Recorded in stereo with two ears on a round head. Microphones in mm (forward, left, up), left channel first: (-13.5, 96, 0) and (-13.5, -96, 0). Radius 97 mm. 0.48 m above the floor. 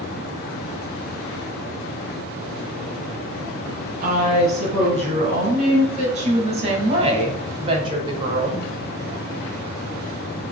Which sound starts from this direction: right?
A woman speaking, at 4.0 s.